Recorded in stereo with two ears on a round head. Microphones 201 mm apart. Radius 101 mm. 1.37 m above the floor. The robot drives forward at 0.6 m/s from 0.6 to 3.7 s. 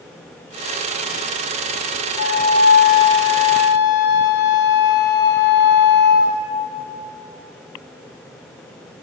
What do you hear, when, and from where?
2.2 s a flute: 40° left (ahead or behind), 0.9 m; by 6.5 s 50° left (ahead or behind), 0.8 m